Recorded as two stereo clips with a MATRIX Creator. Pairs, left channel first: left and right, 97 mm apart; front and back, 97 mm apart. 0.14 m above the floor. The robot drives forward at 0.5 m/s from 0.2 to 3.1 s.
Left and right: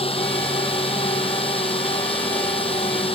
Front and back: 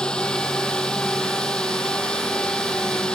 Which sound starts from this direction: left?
A drone, at 0.0 s.